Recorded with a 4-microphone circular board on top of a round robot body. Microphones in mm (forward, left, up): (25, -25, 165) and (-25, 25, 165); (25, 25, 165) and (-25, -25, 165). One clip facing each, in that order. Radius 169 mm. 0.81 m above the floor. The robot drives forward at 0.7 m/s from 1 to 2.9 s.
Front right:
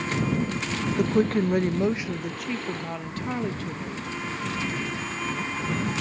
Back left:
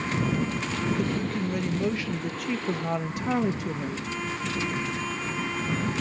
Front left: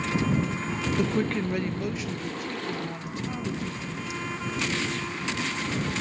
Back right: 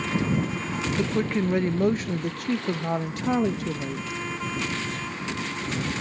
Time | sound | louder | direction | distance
1.0 | a woman speaking | front right 6 dB, back right 2 dB | 45° right | 0.9 m